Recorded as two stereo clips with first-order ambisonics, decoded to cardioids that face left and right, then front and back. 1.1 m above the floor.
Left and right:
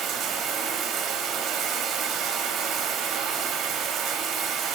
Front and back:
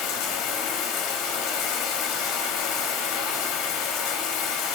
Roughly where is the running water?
Ahead right.